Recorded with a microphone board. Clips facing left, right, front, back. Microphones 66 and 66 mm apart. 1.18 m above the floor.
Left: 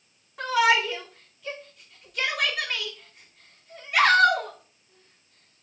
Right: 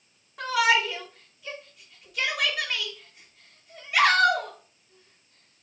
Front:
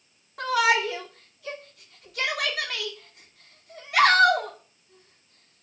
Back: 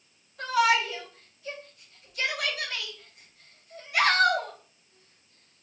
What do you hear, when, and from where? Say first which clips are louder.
0.4 s a shout: left 1 dB, front 1 dB; straight ahead, 2.5 m